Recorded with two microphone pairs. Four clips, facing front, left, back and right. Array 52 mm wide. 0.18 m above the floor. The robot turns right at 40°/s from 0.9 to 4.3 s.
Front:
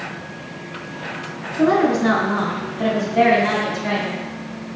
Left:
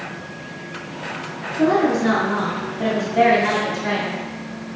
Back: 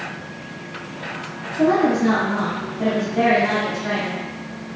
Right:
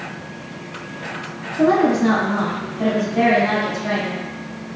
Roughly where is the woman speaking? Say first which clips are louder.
Right 2 dB, front 1 dB; ahead right.